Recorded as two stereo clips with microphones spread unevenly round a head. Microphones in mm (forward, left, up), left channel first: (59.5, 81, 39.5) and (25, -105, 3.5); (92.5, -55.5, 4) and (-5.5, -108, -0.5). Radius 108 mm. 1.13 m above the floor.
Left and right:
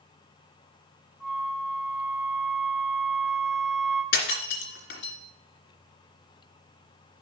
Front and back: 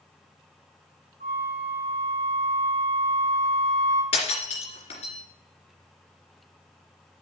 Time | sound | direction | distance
1.2 | a flute | 170° left | 3 m
4.1 | breaking glass | 60° left | 2.5 m